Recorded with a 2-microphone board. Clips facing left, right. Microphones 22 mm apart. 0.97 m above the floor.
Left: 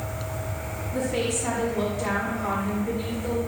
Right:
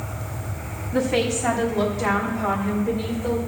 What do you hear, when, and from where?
0.9 s a woman speaking: 55° right (ahead or behind), 2.5 m; by 3.4 s 20° right (ahead or behind), 4.5 m